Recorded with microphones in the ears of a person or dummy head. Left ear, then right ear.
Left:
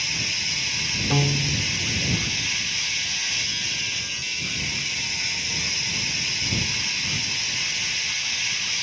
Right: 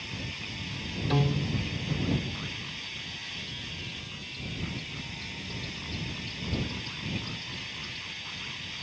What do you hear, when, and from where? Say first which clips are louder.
0.0 s a machine running: left 13 dB; 50° left (ahead or behind)
1.1 s a piano: left 8 dB; 5° left (ahead or behind)